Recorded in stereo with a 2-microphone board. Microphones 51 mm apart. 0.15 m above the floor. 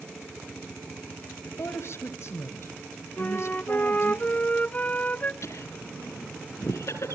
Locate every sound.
1.4 s a woman speaking: 60° left (ahead or behind), 2.5 m
3.2 s a flute: 30° left (ahead or behind), 0.6 m
5.4 s laughter: 65° left (ahead or behind), 4 m